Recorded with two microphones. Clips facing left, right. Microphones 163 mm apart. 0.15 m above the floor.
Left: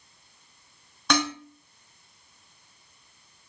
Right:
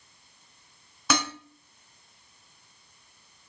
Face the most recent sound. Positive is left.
turn(degrees=-5)  # may be behind; listen again after turning